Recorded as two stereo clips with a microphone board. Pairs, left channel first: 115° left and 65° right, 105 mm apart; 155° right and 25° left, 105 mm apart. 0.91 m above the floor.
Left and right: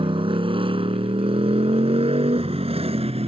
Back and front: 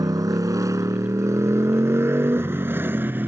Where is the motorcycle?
30° right; by 3.3 s 50° right.